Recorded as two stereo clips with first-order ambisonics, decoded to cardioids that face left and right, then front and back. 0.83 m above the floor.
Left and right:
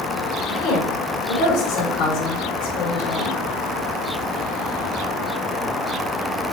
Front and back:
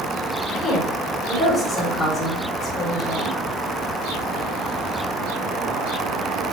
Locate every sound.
0.5 s a woman speaking: 85° left, 3.5 m